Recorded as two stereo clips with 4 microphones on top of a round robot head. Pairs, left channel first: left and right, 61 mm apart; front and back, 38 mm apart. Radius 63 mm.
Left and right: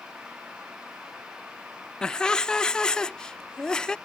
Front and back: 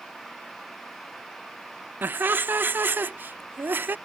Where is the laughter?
165° left.